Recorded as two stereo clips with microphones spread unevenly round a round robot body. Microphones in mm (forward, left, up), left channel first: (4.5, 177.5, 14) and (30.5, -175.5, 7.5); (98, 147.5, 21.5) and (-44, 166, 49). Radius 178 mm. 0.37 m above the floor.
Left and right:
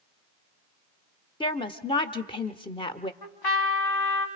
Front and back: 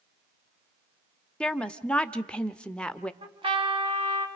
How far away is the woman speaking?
About 0.9 m.